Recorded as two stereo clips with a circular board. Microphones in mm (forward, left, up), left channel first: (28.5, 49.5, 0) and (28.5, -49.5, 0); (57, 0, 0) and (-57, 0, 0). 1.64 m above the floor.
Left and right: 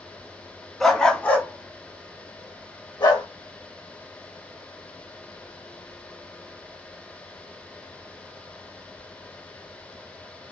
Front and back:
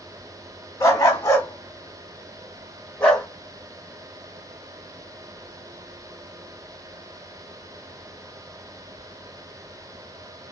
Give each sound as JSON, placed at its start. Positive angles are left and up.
{"t": 0.8, "sound": "a dog barking", "azimuth_deg": 10, "distance_m": 1.1}